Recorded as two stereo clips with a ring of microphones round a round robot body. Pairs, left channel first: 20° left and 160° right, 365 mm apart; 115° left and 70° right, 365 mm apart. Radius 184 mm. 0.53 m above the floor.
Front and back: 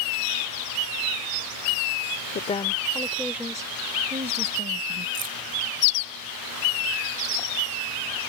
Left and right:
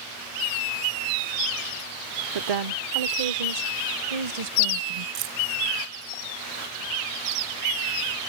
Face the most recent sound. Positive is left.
turn(degrees=-95)